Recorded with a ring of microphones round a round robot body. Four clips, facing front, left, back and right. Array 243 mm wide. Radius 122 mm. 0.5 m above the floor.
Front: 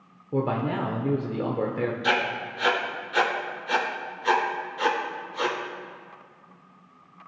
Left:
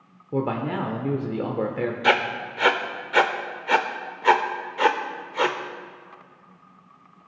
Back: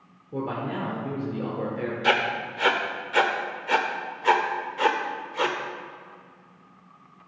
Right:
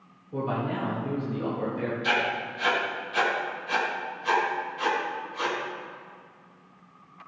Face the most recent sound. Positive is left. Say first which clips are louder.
# left 7 dB, back 2 dB
turn(degrees=105)